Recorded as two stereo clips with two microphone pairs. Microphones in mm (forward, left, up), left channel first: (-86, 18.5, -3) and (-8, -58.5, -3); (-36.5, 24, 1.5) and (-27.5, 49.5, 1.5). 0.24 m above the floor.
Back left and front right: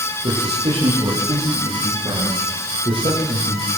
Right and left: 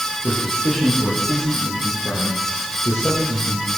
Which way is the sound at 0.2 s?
15° right.